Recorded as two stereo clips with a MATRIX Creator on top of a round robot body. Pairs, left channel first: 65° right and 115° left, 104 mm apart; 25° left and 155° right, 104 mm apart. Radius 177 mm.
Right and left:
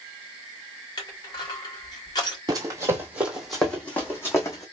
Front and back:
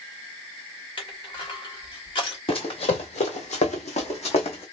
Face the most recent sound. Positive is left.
turn(degrees=-5)